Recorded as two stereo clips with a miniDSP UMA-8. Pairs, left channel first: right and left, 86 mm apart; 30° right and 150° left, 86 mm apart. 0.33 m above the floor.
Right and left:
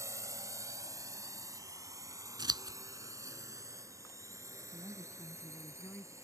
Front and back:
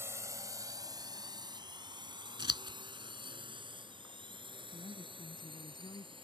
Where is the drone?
110° left; by 6.2 s 145° left.